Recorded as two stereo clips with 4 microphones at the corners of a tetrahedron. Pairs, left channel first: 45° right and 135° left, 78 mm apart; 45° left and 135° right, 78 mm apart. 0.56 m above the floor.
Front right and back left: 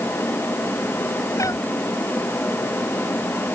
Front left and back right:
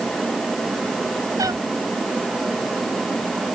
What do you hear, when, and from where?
1.4 s a cat meowing: 90° right